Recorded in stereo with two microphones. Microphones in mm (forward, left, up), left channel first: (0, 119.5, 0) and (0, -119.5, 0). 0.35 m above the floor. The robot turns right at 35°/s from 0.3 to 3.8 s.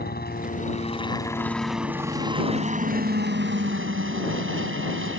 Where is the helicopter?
130° left; by 5.2 s 105° right.